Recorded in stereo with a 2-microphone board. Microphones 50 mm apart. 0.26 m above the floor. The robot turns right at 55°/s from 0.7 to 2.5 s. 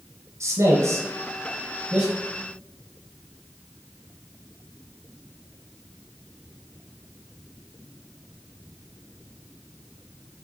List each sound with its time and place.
0.4 s a man speaking: 70° right (ahead or behind), 3 m; by 2.1 s centre (ahead or behind), 3 m